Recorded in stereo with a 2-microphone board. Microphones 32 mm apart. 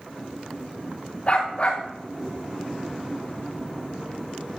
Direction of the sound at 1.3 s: 45° left (ahead or behind).